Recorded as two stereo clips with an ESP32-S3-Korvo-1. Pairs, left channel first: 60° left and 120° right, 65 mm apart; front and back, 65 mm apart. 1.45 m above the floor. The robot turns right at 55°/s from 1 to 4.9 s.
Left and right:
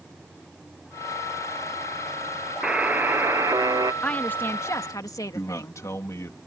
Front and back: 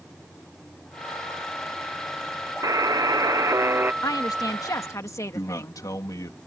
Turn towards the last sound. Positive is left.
turn(degrees=25)